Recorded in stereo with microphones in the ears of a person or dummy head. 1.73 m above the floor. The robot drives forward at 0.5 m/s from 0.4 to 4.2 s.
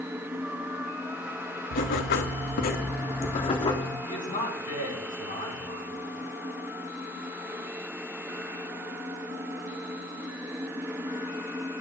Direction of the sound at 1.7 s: 50° left (ahead or behind).